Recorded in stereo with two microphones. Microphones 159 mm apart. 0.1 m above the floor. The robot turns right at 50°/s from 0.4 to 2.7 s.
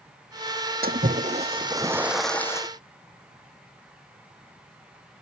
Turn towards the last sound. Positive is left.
turn(degrees=25)